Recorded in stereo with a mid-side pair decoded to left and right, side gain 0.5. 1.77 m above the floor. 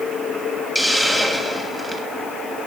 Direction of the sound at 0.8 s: 5° left.